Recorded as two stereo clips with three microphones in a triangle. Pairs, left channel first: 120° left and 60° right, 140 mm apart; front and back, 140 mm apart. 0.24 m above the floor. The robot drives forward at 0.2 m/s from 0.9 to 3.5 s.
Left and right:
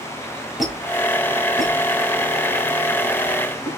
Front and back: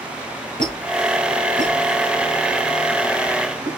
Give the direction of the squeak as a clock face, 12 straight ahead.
5 o'clock.